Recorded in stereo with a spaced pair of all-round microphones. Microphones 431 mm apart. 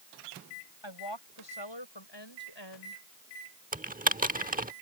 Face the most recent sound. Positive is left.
turn(degrees=-20)  # may be behind; listen again after turning